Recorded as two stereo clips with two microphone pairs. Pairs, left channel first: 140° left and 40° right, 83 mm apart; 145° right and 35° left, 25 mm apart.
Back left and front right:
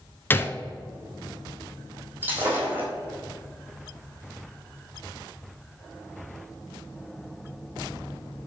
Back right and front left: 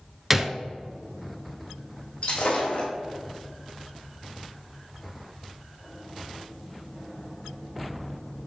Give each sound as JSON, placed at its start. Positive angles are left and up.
{"t": 0.3, "sound": "a gunshot", "azimuth_deg": 105, "distance_m": 0.5}
{"t": 2.2, "sound": "breaking glass", "azimuth_deg": -105, "distance_m": 2.0}